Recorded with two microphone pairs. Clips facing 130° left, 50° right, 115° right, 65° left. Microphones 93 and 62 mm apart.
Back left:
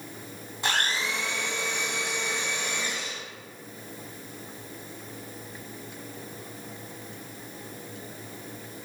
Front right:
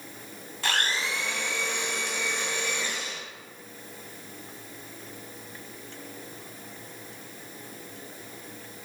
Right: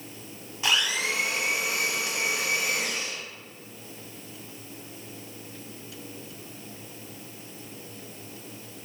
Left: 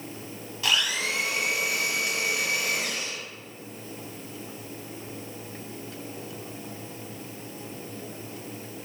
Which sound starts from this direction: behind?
A blender, at 0.6 s.